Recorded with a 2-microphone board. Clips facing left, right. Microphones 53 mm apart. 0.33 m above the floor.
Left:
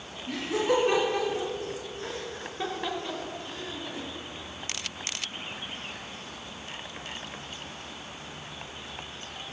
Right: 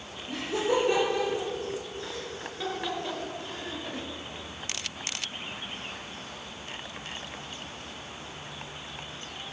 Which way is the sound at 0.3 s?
65° left (ahead or behind).